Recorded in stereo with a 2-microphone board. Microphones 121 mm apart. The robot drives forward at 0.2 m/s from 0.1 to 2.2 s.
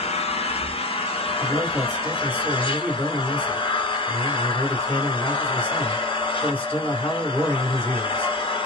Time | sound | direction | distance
0.0 | an engine running | 55° left (ahead or behind) | 0.9 m
1.4 | a man speaking | 15° left (ahead or behind) | 2 m